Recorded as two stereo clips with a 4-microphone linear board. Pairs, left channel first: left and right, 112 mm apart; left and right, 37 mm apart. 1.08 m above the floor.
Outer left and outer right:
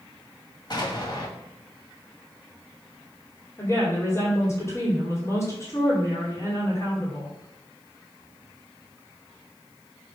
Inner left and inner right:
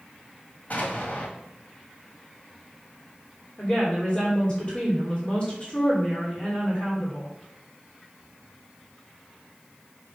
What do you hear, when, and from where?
0.7 s an explosion: 45° left (ahead or behind), 2 m
3.6 s a woman speaking: 25° left (ahead or behind), 3 m